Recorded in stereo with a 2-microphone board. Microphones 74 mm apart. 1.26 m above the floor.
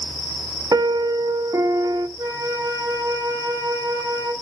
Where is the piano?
55° right (ahead or behind), 1.0 m.